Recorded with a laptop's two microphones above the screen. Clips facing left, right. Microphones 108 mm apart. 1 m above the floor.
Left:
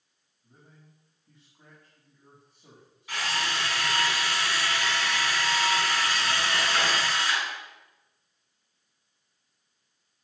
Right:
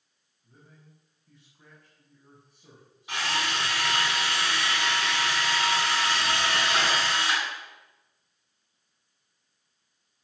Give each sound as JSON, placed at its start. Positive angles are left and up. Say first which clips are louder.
{"t": 0.4, "sound": "a man speaking", "louder": "right 1 dB", "side_deg": 20, "distance_m": 6.0}
{"t": 3.1, "sound": "a drill", "louder": "right 1 dB", "side_deg": -20, "distance_m": 8.0}